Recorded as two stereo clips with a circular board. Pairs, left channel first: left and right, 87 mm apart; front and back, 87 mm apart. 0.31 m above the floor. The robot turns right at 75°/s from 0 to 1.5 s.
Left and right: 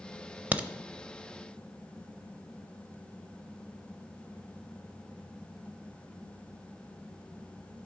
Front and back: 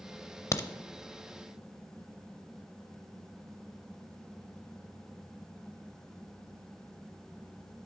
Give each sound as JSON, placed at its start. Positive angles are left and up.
{"t": 0.5, "sound": "a crack", "azimuth_deg": -30, "distance_m": 0.6}